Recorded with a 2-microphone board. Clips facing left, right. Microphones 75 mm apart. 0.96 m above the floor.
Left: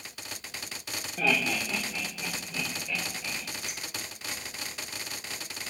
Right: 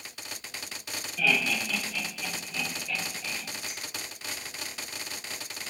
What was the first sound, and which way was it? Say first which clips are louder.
Laughter: even; 40° left (ahead or behind).